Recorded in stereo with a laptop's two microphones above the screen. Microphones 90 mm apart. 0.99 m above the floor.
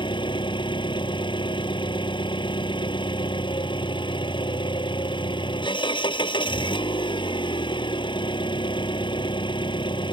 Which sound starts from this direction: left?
An engine running, at 0.0 s.